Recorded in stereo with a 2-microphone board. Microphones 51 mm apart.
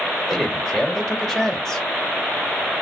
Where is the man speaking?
5° left (ahead or behind), 1.2 m.